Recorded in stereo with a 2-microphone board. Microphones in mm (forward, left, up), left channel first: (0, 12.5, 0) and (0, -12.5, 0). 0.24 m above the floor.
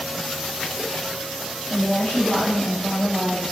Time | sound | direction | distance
1.7 | a woman speaking | 55° left (ahead or behind) | 2.5 m